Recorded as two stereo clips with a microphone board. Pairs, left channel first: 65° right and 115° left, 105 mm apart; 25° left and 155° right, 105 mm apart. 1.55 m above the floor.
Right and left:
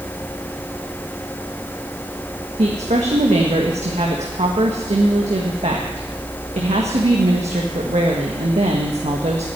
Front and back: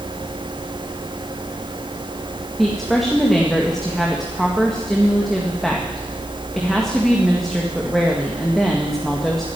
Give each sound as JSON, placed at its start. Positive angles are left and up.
{"t": 2.6, "sound": "a woman speaking", "azimuth_deg": 110, "distance_m": 1.7}